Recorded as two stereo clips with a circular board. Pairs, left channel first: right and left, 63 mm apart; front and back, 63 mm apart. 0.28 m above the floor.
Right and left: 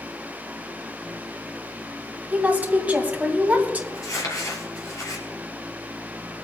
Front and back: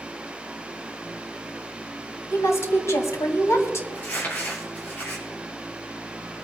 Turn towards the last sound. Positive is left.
turn(degrees=-60)